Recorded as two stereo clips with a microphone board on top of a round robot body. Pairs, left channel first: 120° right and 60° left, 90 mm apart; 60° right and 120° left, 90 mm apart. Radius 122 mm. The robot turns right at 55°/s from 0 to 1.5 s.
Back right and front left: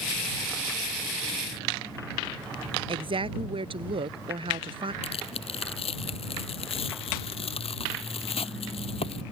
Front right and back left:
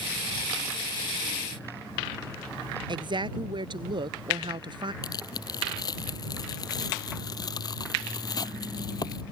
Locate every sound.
2.9 s a woman speaking: 85° left
5.0 s tearing paper: 110° right